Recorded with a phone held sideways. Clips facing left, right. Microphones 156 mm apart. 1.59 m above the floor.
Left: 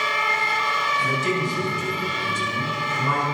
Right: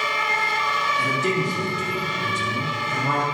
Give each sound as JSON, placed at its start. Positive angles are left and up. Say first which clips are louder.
{"t": 1.0, "sound": "a man speaking", "louder": "right 1 dB", "side_deg": -55, "distance_m": 4.0}